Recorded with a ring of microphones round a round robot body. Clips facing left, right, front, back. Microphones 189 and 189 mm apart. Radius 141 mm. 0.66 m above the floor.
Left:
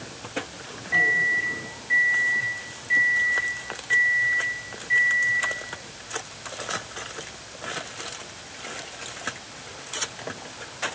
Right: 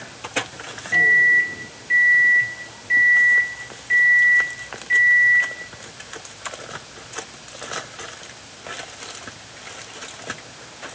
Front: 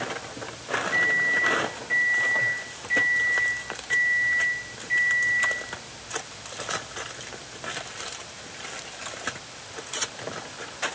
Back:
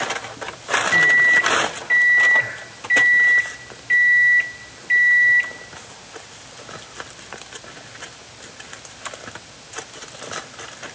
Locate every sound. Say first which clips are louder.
0.9 s a microwave: right 3 dB, back 6 dB; 160° right, 1.3 m